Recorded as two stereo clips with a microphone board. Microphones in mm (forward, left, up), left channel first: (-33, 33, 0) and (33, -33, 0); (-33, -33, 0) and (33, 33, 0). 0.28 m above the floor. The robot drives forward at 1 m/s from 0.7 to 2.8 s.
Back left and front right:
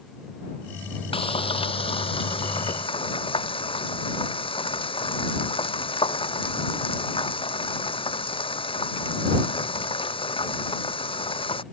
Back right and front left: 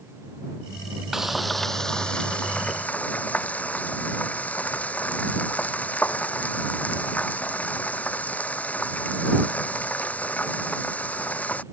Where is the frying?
130° left; by 11.6 s 150° left.